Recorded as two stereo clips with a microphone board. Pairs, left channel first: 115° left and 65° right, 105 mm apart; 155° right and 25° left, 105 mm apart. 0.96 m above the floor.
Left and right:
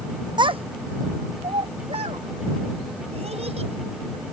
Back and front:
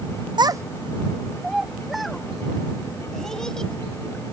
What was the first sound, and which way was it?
A child speaking, 20° right.